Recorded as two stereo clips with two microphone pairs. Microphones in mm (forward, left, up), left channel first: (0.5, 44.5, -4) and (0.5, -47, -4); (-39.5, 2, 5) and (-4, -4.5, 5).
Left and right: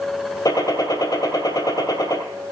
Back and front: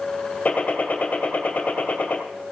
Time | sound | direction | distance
0.5 | a gunshot | 125° left | 2 m